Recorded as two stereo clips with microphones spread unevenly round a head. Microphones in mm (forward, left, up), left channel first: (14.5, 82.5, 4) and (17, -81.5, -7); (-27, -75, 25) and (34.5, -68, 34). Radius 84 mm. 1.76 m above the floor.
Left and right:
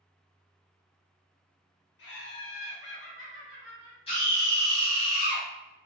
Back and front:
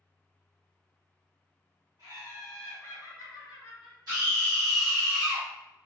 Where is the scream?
40° left, 1.1 m.